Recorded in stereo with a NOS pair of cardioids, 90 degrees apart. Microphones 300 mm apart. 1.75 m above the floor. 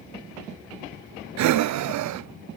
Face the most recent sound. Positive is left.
turn(degrees=-70)